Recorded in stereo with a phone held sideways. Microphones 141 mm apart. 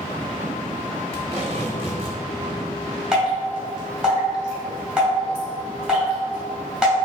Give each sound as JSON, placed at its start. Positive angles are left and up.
{"t": 1.1, "sound": "tape being pulled", "side_deg": -45, "distance_m": 1.1}
{"t": 3.1, "sound": "dripping", "side_deg": -5, "distance_m": 1.8}